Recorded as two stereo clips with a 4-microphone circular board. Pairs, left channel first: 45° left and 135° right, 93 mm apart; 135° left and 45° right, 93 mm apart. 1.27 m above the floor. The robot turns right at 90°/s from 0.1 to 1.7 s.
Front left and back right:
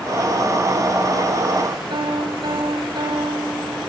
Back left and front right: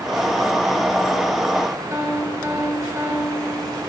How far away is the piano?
About 5.5 m.